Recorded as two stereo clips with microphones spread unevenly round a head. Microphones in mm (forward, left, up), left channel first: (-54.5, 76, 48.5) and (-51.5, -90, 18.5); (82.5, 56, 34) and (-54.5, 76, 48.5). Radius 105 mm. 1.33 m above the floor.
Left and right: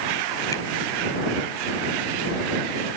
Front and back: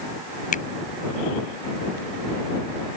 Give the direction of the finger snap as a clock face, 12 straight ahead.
11 o'clock.